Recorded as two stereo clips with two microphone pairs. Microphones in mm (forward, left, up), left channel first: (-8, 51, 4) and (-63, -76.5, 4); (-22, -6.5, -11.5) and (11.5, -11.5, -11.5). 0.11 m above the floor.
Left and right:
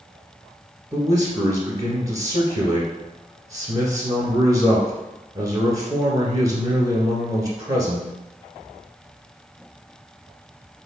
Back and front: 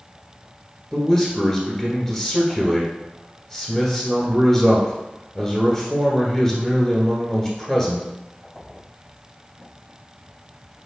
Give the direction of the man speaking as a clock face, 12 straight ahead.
4 o'clock.